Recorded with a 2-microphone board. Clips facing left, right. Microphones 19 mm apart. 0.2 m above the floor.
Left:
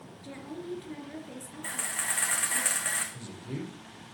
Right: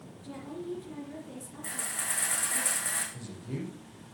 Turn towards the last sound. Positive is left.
turn(degrees=15)  # may be behind; listen again after turning